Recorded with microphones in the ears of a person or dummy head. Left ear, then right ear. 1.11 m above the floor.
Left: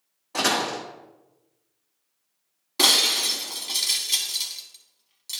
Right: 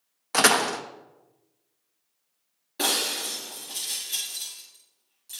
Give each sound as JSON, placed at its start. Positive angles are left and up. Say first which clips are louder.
{"t": 0.3, "sound": "a door slam", "louder": "right 3 dB", "side_deg": -60, "distance_m": 0.6}
{"t": 2.8, "sound": "breaking glass", "louder": "left 7 dB", "side_deg": 30, "distance_m": 1.1}